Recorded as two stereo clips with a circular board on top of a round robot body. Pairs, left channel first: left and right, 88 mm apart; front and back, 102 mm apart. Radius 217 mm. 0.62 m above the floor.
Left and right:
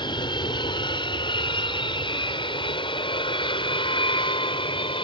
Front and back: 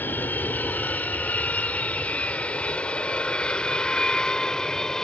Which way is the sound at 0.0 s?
70° left.